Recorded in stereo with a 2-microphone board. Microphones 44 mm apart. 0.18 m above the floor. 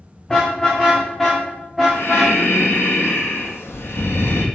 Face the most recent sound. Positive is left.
turn(degrees=70)  # may be behind; listen again after turning